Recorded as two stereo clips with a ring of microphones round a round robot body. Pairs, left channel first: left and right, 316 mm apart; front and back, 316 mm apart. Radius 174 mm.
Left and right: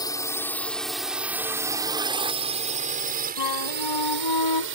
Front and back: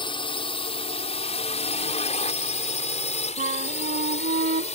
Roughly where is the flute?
Behind left.